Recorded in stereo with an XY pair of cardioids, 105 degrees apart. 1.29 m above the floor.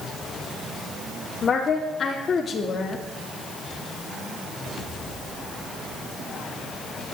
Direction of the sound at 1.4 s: 45° left.